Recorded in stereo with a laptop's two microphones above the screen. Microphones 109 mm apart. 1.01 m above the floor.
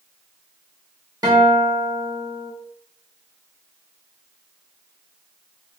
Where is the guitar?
35° right (ahead or behind), 1.0 m.